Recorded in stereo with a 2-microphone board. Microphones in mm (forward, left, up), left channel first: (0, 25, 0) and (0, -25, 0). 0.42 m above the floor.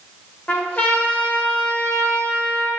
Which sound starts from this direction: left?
A trumpet, at 0.5 s.